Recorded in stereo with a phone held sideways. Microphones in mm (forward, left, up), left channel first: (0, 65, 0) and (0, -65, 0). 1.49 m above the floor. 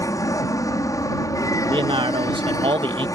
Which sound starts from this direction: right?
A man speaking, at 1.7 s.